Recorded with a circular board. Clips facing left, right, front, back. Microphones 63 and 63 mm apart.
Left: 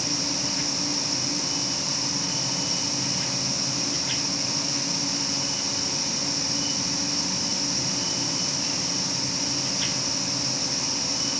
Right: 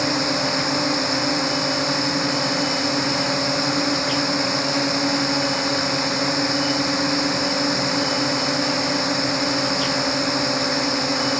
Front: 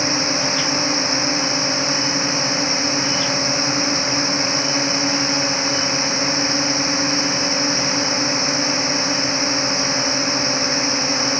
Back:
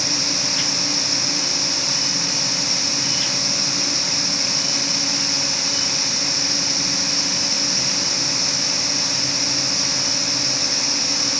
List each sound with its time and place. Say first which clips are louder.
0.0 s a drone: right 10 dB, front 7 dB; 60° right